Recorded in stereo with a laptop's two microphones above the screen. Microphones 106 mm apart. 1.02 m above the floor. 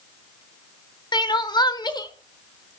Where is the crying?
40° left (ahead or behind), 0.8 m.